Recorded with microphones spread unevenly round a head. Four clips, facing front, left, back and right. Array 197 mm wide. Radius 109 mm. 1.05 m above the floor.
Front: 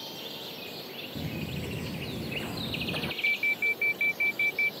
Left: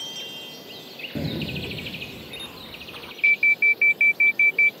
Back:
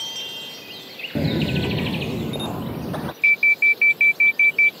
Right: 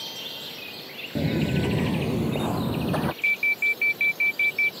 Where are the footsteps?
165° left; by 3.1 s 110° right.